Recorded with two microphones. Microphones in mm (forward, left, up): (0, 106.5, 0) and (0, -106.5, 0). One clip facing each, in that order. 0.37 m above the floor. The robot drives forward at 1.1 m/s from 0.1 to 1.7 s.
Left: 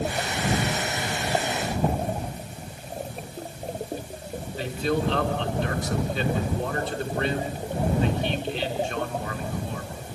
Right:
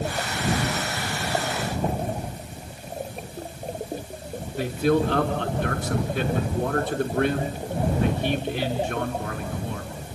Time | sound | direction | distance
4.6 | a man speaking | 55° right (ahead or behind) | 4.5 m